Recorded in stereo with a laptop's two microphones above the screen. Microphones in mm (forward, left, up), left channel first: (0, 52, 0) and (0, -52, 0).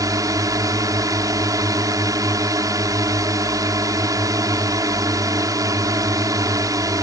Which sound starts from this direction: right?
A drone, at 0.0 s.